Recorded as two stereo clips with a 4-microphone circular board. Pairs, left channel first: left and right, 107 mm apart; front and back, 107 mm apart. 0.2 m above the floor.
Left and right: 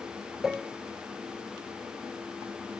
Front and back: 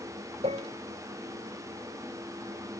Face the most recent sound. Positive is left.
turn(degrees=-175)